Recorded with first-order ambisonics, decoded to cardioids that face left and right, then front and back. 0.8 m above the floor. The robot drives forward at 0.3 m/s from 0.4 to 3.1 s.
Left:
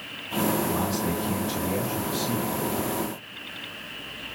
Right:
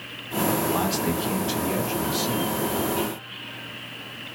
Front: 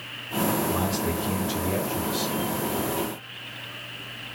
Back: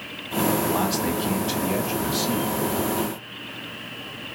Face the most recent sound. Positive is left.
turn(degrees=-155)